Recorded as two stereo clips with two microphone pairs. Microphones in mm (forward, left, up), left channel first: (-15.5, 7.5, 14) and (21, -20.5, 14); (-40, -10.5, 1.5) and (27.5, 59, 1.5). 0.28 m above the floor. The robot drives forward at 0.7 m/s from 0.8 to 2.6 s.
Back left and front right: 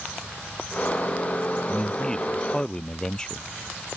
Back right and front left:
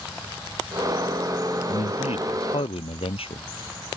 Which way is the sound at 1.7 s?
140° right.